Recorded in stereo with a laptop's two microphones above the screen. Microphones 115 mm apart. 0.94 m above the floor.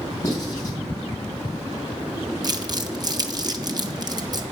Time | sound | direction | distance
0.2 | writing | 30° left (ahead or behind) | 3 m
2.4 | crumpling | 35° right (ahead or behind) | 0.7 m